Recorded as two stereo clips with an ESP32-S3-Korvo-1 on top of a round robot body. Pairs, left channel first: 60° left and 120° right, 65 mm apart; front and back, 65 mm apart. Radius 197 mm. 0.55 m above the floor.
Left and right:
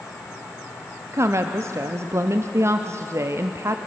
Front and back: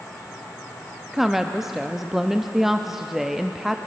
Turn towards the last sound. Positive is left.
turn(degrees=-95)